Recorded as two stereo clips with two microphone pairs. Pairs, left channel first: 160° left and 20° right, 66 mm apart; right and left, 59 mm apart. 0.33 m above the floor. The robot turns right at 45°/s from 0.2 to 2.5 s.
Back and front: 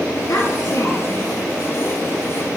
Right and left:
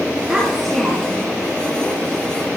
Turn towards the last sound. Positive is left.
turn(degrees=-95)